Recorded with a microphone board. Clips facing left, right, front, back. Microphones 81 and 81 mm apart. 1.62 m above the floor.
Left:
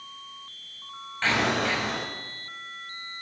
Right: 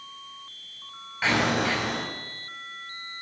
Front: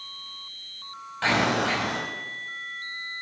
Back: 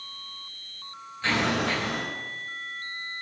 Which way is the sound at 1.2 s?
10° right.